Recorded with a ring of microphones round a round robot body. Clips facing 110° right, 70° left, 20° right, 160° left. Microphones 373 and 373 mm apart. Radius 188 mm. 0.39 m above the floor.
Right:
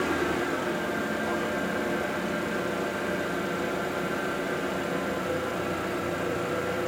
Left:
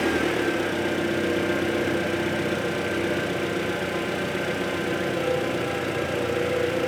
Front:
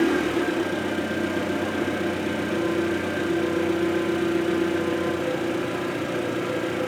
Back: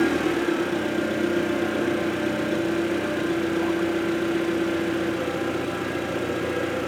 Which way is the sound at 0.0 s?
65° left.